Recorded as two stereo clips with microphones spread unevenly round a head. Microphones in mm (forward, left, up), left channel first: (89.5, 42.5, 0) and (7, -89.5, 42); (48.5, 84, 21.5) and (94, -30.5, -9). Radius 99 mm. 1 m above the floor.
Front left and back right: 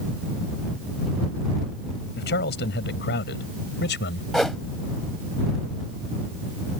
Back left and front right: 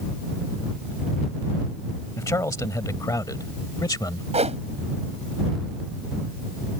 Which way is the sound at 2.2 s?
45° left.